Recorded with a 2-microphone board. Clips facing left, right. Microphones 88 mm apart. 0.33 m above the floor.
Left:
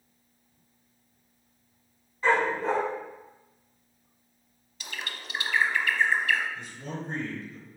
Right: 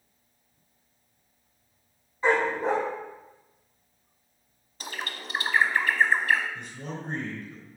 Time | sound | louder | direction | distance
2.2 | a dog barking | right 1 dB | 20° right (ahead or behind) | 4.5 m
4.8 | a bird | right 3 dB | 40° right (ahead or behind) | 0.9 m
6.5 | a man speaking | even | 55° right (ahead or behind) | 3.5 m